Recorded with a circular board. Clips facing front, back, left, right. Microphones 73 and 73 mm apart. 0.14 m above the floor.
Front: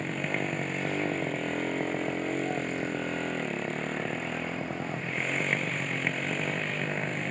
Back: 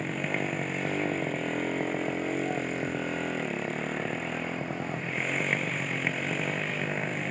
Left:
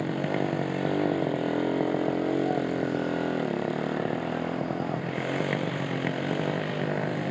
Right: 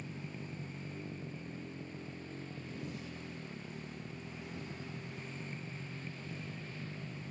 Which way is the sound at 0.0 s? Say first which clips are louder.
Even, left 19 dB; 90° left.